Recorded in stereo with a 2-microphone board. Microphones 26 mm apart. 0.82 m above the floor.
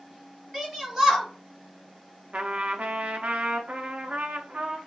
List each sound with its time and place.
0.5 s a shout: 15° right (ahead or behind), 2 m
2.3 s a trumpet: 55° right (ahead or behind), 0.6 m